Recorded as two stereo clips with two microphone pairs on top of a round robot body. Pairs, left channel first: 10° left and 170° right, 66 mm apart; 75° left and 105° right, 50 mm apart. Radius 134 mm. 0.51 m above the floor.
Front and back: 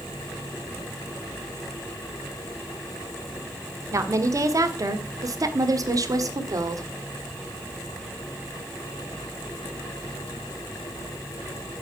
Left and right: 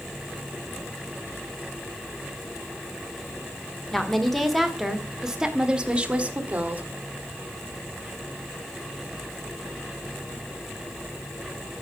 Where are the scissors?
No scissors in this recording.